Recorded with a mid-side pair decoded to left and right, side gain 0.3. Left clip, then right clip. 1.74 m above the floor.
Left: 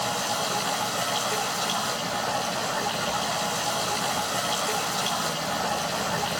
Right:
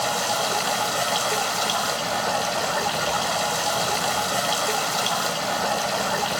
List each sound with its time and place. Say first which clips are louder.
0.0 s running water: right 4 dB; 55° right, 4 m